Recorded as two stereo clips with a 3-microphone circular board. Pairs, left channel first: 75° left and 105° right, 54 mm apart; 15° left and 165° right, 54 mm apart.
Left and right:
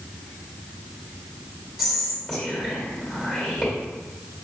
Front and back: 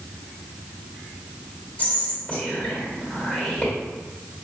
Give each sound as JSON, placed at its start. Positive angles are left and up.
{"t": 1.8, "sound": "whispering", "azimuth_deg": -20, "distance_m": 1.7}